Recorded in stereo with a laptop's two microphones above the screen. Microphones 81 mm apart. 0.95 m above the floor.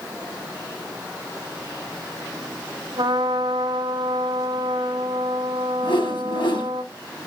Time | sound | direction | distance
3.0 | a trumpet | 70° right (ahead or behind) | 3.5 m
5.8 | a whoosh | 85° left | 3 m